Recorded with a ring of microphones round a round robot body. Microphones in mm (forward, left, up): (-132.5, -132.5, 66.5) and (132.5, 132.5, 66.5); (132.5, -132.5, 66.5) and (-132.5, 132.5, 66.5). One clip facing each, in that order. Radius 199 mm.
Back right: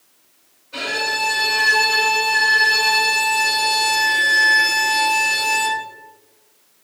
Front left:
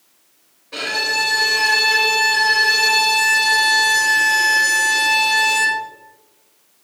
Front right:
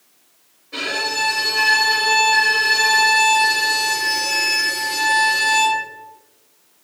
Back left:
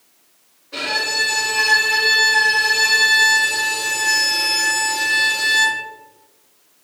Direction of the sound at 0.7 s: 45° left.